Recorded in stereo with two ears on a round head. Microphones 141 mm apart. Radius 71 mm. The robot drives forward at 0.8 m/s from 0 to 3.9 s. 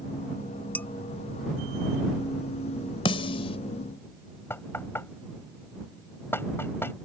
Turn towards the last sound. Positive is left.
turn(degrees=15)  # may be behind; listen again after turning